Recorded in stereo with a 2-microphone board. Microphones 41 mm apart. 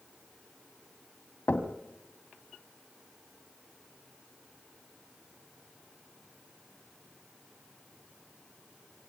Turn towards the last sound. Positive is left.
turn(degrees=55)  # may be behind; listen again after turning